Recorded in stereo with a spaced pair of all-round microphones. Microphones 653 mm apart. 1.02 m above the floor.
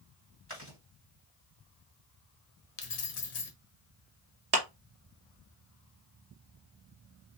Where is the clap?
75° right (ahead or behind), 1.2 m.